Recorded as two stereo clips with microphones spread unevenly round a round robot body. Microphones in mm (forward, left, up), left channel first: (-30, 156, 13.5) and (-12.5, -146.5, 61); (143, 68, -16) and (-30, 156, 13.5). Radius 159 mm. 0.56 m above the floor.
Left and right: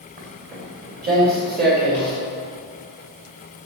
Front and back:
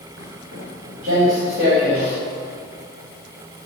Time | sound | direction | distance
0.2 | footsteps | 150° right | 3.5 m